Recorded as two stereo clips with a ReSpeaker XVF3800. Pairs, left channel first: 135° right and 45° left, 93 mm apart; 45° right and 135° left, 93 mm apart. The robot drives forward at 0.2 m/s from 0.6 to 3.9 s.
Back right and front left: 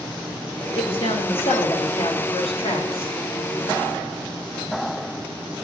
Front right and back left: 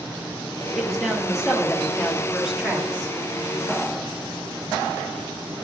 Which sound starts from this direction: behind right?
A man speaking, at 0.8 s.